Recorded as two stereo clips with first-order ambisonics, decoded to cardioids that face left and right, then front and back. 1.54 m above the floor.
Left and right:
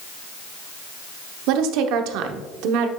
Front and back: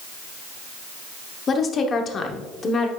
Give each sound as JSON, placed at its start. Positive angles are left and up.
{"t": 1.5, "sound": "a woman speaking", "azimuth_deg": -65, "distance_m": 0.8}